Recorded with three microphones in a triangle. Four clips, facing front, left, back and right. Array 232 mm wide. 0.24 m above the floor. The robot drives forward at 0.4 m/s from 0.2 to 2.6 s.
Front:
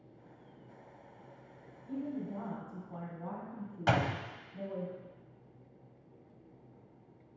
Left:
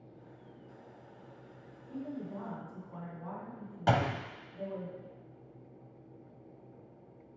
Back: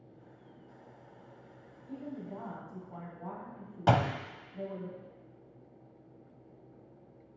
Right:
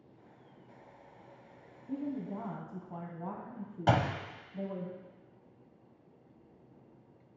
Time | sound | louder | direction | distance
1.9 | a woman speaking | right 3 dB, front 3 dB | 75° right | 2 m
3.9 | a door slam | even, back 3 dB | straight behind | 0.7 m